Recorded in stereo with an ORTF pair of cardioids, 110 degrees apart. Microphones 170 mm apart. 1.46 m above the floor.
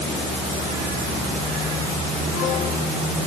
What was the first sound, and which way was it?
Only background noise.